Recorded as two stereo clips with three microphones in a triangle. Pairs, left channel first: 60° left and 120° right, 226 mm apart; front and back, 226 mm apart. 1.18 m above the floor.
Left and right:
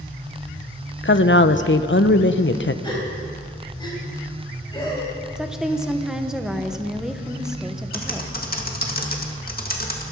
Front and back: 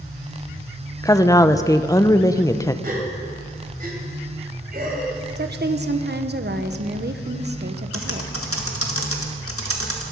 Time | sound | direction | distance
1.0 | a woman speaking | 75° left | 0.7 m
2.8 | a gasp | 130° left | 3 m
5.4 | a woman speaking | 155° left | 1.0 m
7.9 | typing on a keyboard | 10° left | 1.9 m